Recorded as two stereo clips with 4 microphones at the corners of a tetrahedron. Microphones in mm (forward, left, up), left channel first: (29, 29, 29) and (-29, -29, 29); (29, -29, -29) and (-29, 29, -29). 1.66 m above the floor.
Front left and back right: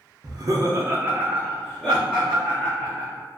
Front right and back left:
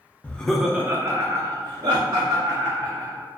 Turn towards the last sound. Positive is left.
turn(degrees=120)